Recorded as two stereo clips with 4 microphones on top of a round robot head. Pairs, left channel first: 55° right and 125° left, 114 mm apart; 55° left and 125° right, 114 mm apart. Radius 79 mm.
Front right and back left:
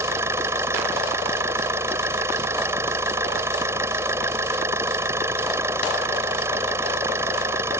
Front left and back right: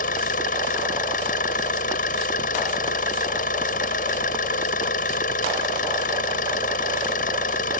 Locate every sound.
0.0 s an engine running: 55° left